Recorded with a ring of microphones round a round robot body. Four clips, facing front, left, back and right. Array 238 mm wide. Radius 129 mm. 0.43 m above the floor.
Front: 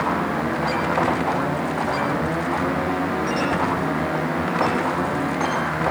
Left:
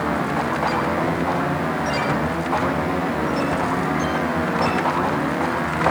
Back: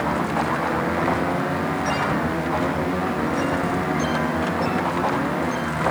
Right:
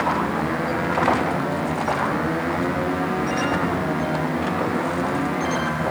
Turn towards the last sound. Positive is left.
No sound to turn to.